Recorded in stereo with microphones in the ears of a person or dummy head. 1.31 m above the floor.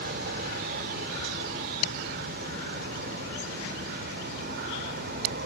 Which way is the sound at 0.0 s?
55° right (ahead or behind).